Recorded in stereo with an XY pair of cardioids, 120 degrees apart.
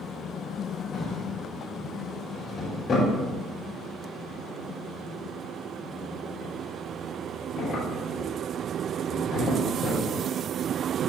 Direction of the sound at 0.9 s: 40° left.